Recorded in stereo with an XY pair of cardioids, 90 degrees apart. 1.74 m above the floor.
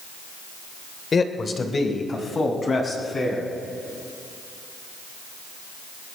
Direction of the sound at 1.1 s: 45° left.